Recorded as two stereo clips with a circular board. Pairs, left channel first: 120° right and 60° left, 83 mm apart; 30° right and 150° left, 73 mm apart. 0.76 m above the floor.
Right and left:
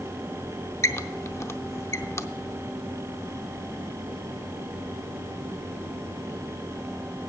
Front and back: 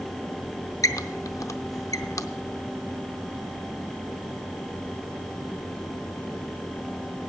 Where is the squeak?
65° right, 0.6 m.